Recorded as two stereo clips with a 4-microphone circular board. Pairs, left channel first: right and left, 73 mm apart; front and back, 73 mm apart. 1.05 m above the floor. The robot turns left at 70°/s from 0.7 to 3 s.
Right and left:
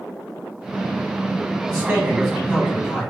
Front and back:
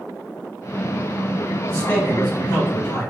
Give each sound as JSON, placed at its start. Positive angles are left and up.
{"t": 1.7, "sound": "a man speaking", "azimuth_deg": 55, "distance_m": 1.0}